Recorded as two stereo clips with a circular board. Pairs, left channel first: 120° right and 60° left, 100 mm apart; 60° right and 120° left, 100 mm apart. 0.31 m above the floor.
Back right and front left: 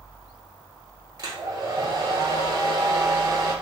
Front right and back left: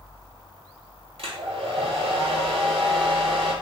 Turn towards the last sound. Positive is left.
turn(degrees=105)